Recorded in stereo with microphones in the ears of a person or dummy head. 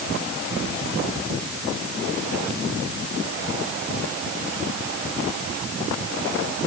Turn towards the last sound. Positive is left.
No sound to turn to.